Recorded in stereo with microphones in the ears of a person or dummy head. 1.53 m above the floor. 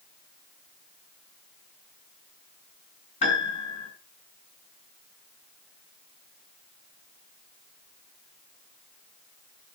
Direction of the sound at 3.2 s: 35° left (ahead or behind).